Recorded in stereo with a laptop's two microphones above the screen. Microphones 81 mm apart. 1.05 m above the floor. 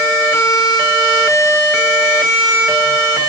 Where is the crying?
No crying in this recording.